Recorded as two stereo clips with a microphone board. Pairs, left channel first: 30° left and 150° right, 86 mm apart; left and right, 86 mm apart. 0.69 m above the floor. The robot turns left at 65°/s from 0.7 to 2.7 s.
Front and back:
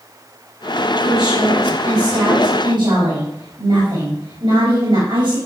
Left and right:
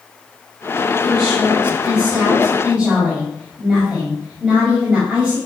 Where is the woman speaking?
55° right, 4.5 m; by 5.4 s 165° right, 4.5 m.